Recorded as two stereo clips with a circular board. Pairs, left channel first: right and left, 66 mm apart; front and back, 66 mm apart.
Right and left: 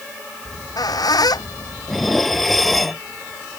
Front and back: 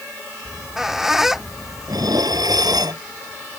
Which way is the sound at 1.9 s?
Straight behind.